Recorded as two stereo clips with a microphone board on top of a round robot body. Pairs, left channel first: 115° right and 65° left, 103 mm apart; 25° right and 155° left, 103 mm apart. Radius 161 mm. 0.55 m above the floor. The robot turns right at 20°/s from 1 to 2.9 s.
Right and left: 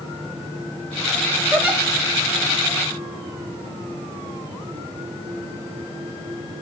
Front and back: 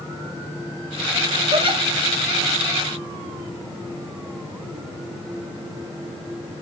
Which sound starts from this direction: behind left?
A giggle, at 1.5 s.